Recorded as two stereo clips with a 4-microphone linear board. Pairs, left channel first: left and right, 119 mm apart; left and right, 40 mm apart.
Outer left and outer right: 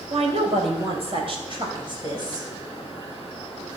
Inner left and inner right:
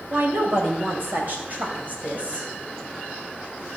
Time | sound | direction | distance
0.1 | a woman speaking | 60° right (ahead or behind) | 2.5 m